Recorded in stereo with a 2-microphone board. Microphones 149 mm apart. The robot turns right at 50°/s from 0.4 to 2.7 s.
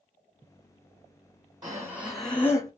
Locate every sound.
1.6 s breathing: 25° right, 1.0 m; by 2.7 s 25° left, 1.0 m